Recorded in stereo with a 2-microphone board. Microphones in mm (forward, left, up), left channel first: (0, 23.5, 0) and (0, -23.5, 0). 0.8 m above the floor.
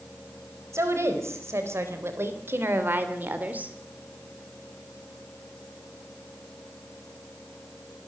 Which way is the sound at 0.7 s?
75° right (ahead or behind).